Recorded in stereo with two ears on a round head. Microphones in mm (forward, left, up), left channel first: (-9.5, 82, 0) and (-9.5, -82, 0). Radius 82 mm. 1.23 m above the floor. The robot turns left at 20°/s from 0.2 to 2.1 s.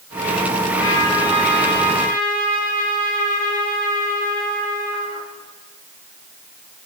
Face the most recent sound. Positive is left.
turn(degrees=45)  # may be behind; listen again after turning